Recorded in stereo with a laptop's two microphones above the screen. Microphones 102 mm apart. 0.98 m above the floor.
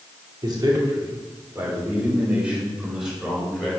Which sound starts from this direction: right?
A man speaking, at 0.4 s.